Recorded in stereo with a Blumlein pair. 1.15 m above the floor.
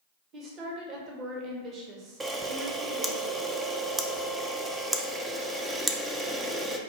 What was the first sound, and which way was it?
A woman speaking, 30° right.